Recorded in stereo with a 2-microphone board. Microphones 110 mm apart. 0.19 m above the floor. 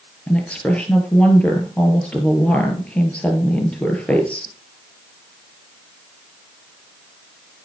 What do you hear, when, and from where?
0.3 s a woman speaking: 10° left (ahead or behind), 3.5 m